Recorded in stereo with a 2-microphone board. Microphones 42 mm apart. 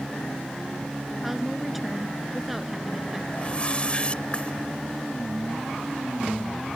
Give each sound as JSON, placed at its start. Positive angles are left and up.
{"t": 1.2, "sound": "a woman speaking", "side_deg": -5}
{"t": 3.3, "sound": "a whoosh", "side_deg": 30}